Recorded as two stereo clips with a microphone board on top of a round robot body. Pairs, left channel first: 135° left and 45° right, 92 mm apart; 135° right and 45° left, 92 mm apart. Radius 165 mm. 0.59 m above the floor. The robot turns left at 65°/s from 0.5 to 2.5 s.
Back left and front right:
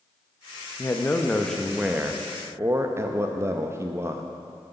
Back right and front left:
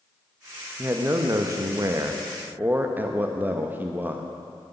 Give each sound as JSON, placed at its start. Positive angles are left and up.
{"t": 0.8, "sound": "a man speaking", "azimuth_deg": 100, "distance_m": 1.0}